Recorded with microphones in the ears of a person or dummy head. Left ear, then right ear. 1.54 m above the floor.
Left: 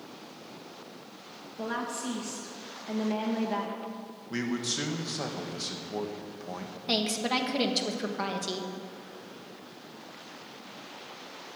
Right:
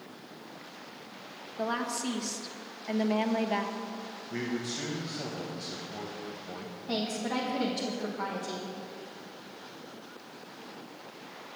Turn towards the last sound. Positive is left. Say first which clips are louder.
# left 5 dB
turn(degrees=80)